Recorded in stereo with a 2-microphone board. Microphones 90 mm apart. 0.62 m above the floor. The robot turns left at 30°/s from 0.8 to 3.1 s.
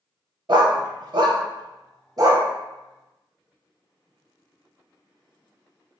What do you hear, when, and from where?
0.5 s a dog barking: 55° right (ahead or behind), 0.5 m; by 2.5 s 35° right (ahead or behind), 0.5 m